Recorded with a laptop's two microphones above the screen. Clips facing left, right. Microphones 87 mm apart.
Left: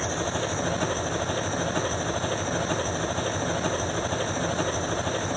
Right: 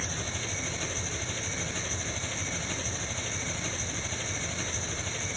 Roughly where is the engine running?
Left.